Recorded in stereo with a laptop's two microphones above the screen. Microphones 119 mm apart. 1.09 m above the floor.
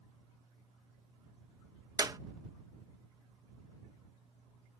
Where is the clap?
30° right (ahead or behind).